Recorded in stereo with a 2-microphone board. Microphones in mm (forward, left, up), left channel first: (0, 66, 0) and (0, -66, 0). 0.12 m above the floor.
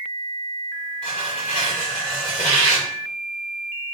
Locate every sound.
1.0 s tearing paper: 50° left (ahead or behind), 3 m